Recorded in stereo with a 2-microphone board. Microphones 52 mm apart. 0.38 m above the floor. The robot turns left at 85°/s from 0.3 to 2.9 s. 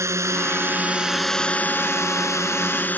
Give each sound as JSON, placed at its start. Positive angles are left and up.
{"t": 0.0, "sound": "a drone", "azimuth_deg": -105}